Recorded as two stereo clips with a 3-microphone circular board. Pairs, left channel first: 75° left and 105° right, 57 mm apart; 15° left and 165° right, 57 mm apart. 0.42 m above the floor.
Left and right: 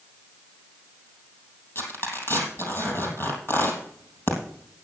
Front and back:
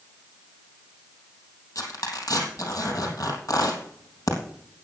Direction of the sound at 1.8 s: 30° left.